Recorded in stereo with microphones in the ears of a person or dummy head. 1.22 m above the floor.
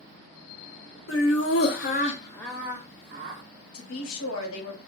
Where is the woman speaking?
70° left (ahead or behind), 1.1 m.